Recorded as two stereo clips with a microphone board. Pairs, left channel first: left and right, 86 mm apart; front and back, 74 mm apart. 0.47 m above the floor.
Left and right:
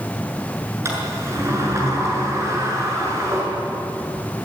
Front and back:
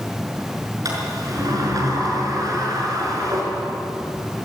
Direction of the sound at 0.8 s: 145° right.